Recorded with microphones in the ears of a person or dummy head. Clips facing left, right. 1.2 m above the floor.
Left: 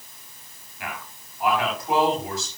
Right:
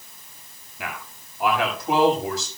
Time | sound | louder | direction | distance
0.8 | a man speaking | right 1 dB | 65° right (ahead or behind) | 6.5 m